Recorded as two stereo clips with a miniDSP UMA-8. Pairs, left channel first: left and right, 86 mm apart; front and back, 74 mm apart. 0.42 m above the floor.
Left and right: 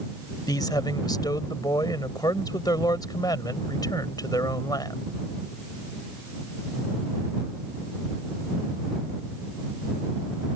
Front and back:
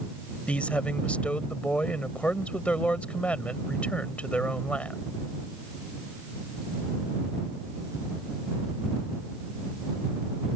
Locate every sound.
0.5 s a man speaking: 70° left